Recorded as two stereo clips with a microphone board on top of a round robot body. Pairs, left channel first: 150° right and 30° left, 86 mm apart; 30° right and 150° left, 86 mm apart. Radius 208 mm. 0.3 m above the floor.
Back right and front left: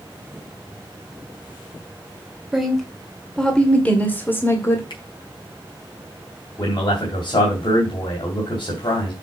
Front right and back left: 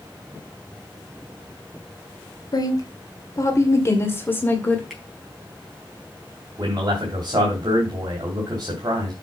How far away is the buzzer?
No buzzer in this recording.